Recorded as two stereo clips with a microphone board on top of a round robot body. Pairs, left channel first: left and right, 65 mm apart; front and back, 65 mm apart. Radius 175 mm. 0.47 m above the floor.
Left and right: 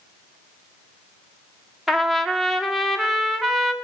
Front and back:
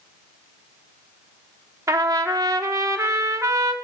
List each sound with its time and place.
1.9 s a trumpet: straight behind, 1.5 m